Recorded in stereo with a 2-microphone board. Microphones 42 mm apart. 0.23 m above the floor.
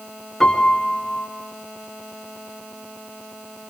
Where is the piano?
10° left (ahead or behind), 3 m.